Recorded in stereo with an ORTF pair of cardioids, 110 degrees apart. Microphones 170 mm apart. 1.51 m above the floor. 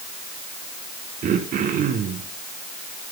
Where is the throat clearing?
55° right, 3 m.